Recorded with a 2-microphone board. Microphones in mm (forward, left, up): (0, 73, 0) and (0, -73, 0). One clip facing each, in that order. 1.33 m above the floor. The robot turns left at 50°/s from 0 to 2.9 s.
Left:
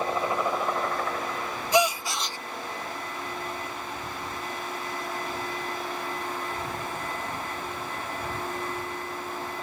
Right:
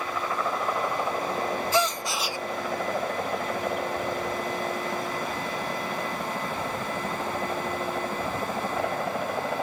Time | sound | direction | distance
0.0 | a helicopter | 35° left (ahead or behind) | ?
1.7 | a gasp | 20° left | ?